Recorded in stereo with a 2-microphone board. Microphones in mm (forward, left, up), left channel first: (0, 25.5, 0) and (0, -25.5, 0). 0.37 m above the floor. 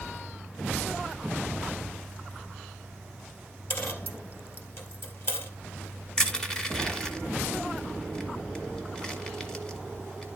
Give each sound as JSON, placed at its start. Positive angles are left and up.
{"t": 3.7, "sound": "a dropped coin", "side_deg": 55, "distance_m": 1.8}
{"t": 6.2, "sound": "crushing", "side_deg": 15, "distance_m": 1.4}